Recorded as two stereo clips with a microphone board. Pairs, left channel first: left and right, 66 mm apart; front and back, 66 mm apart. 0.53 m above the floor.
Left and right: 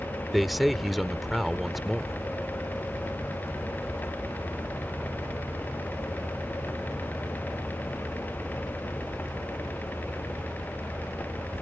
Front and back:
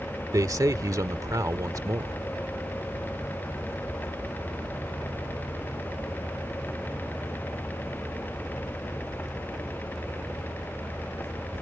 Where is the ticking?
No ticking in this recording.